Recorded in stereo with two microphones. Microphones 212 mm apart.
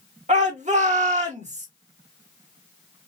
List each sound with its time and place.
0.3 s a shout: 35° right (ahead or behind), 1.9 m